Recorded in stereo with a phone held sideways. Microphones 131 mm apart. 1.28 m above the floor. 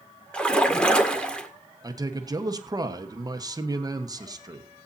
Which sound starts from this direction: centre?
A splash, at 0.3 s.